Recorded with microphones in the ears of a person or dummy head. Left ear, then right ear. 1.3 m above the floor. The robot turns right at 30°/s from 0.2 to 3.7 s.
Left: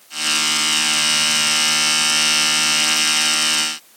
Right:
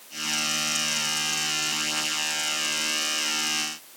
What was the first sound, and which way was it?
Only background noise.